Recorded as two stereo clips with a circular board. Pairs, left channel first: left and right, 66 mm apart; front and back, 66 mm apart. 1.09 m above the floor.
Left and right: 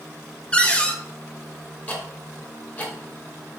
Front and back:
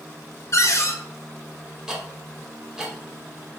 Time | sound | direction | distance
0.5 | a cupboard door | 20° left | 0.5 m
1.9 | ticking | 115° left | 0.8 m